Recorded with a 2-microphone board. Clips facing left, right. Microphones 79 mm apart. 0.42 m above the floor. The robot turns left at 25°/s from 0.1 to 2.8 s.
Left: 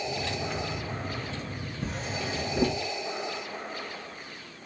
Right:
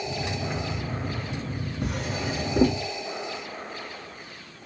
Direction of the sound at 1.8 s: 70° right (ahead or behind).